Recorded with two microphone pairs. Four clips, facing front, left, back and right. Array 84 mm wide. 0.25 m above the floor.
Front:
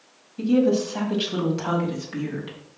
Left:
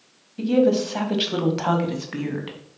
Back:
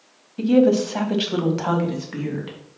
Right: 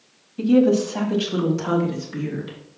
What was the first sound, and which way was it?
A woman speaking, 170° right.